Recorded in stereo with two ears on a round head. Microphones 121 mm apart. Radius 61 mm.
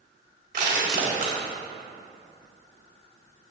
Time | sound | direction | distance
0.5 | crushing | 75° right (ahead or behind) | 4 m